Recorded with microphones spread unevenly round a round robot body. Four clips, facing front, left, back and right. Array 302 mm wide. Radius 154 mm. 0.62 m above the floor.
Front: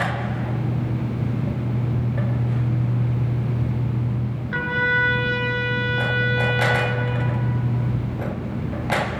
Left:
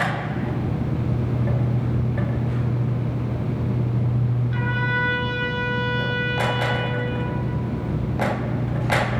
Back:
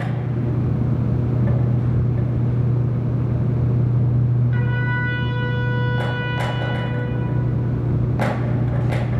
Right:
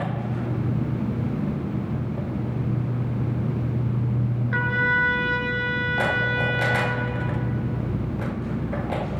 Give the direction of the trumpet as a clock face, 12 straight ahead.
1 o'clock.